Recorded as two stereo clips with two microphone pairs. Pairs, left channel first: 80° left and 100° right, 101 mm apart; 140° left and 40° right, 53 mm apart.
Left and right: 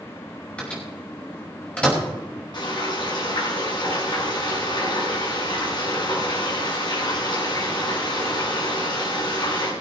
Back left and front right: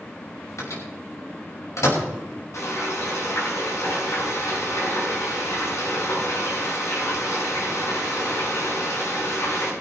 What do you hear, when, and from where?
0.6 s a microwave: 160° left, 5 m
2.5 s frying: 125° left, 6.5 m